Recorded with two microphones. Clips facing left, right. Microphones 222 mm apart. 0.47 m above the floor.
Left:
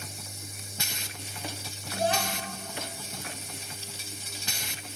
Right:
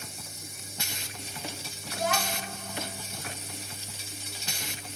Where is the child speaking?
30° left (ahead or behind), 2.5 m.